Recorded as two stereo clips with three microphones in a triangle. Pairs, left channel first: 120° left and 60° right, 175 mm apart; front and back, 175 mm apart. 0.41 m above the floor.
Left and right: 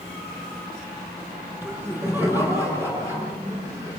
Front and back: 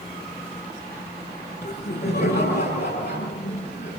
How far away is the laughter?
About 7 m.